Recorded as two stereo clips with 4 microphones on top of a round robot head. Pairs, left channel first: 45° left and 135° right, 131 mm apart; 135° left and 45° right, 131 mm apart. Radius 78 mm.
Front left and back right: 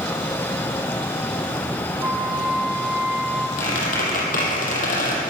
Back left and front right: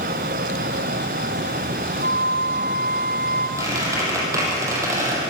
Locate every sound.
2.0 s a flute: 55° right, 2.0 m
3.6 s a squeak: 20° left, 4.5 m